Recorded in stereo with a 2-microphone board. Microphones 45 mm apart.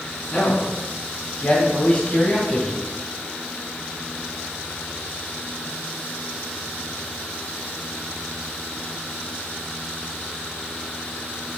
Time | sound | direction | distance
0.3 | a man speaking | 50° left (ahead or behind) | 3 m